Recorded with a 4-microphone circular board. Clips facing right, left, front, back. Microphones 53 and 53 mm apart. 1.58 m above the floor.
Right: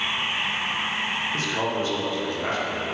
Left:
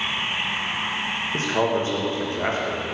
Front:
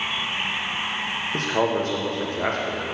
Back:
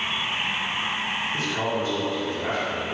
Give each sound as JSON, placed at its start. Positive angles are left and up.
{"t": 1.3, "sound": "a man speaking", "azimuth_deg": 30, "distance_m": 1.3}